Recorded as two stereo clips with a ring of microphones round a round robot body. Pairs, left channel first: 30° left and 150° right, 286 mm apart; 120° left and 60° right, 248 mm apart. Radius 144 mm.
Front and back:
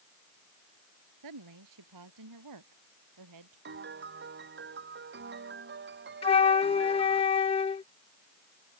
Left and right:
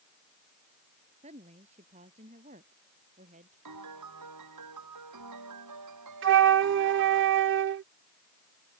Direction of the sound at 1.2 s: 130° right.